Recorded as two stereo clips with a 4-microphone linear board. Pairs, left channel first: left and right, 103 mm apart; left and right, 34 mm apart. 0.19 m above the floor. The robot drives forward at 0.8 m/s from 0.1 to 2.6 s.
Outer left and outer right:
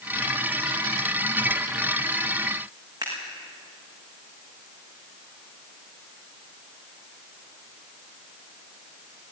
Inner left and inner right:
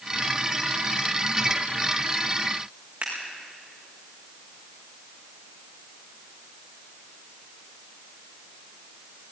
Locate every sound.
3.0 s scissors: 35° right (ahead or behind), 6.5 m